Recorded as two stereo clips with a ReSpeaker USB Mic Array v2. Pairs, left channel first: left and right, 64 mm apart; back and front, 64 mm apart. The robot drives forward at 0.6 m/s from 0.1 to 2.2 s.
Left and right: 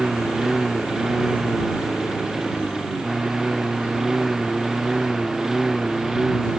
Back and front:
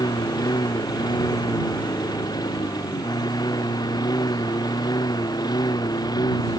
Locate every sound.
0.0 s a lawn mower: 170° right; by 6.6 s 175° right